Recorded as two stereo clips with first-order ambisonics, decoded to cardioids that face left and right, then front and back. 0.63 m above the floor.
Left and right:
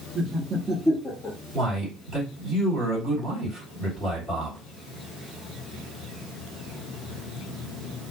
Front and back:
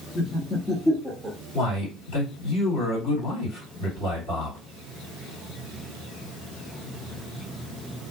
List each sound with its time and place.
0.1 s laughter: 45° right, 0.8 m; by 1.4 s 105° left, 0.6 m
1.5 s a man speaking: 10° right, 2.0 m